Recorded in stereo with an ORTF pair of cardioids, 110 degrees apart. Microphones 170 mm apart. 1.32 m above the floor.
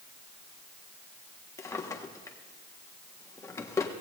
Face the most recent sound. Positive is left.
turn(degrees=20)